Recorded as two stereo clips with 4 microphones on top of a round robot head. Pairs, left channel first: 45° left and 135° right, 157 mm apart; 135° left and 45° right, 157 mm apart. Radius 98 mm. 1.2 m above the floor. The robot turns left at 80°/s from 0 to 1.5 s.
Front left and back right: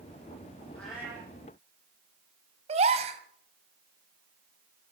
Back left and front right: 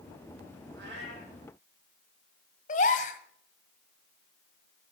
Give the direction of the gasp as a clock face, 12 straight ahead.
6 o'clock.